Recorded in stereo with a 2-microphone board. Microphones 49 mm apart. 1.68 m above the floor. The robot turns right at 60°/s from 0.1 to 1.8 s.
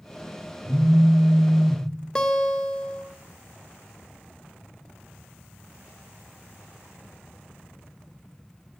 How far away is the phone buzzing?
About 0.9 m.